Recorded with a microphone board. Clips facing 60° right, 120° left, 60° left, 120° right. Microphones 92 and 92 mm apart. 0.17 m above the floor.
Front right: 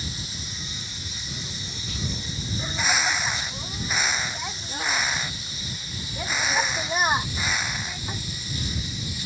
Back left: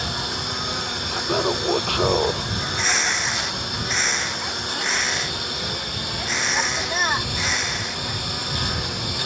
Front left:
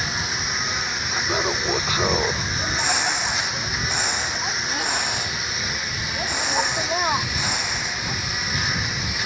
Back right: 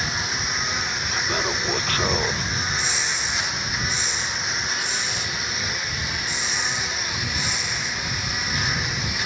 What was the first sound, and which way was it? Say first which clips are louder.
A lawn mower: back left 10 dB, even; 150° left.